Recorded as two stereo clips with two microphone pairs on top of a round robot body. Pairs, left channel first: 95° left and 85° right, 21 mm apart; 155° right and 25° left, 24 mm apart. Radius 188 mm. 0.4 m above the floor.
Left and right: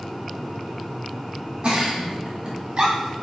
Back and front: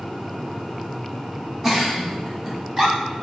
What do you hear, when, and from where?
1.6 s a giggle: 35° right, 1.8 m